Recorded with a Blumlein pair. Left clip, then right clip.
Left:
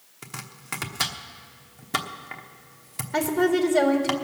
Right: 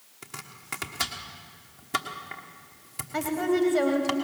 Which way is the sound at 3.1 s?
50° left.